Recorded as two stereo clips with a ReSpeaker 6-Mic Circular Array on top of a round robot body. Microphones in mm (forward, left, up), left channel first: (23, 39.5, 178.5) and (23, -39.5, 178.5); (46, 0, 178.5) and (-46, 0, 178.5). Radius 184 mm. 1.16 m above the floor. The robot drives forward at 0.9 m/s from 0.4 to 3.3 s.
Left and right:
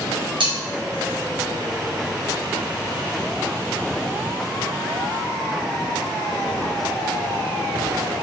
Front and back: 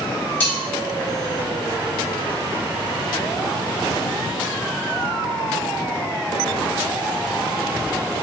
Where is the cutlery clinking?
70° right, 3 m; by 0.6 s 75° right, 3 m.